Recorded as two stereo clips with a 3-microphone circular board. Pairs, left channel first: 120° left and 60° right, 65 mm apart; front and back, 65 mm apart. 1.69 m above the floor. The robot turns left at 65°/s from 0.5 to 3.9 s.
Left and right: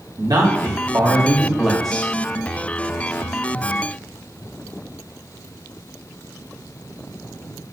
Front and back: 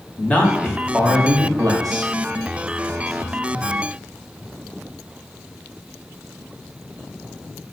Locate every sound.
0.2 s a man speaking: 70° right, 1.1 m; by 2.1 s 175° right, 1.1 m